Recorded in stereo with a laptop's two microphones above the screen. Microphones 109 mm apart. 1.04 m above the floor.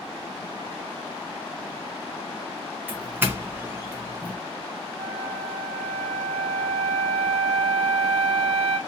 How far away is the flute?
About 1.3 m.